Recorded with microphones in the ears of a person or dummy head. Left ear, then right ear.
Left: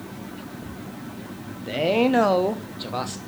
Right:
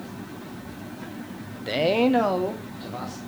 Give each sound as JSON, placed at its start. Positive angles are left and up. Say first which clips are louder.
{"t": 1.7, "sound": "a man speaking", "louder": "even", "side_deg": -20, "distance_m": 0.6}